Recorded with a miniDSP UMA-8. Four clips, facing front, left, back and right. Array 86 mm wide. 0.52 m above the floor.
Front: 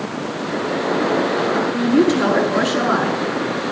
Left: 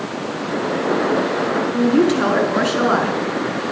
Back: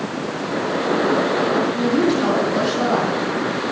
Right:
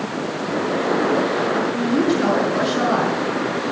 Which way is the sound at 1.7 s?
65° left.